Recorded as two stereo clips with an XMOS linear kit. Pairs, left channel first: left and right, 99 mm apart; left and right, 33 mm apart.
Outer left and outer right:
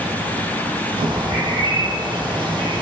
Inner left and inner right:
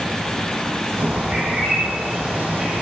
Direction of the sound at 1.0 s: 50° right (ahead or behind).